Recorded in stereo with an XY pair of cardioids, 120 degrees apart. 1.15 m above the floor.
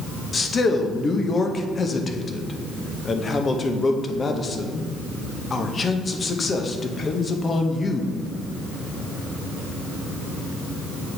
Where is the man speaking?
30° left, 0.7 m.